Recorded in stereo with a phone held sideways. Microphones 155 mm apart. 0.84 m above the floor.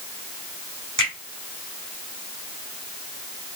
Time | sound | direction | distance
1.0 | a finger snap | 30° left (ahead or behind) | 2.5 m